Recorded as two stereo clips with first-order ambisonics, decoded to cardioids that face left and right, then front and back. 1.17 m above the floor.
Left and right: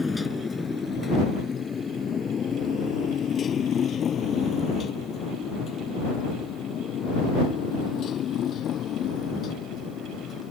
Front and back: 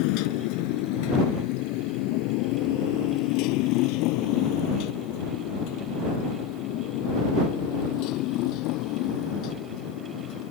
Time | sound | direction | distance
0.0 | a motorcycle | 10° left | ?